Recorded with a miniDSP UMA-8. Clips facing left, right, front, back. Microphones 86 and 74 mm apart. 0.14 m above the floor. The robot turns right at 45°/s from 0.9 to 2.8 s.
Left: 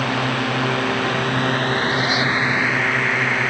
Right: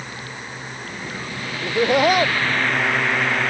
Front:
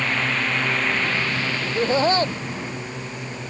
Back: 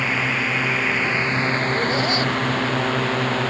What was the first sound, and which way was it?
A drone, 95° left.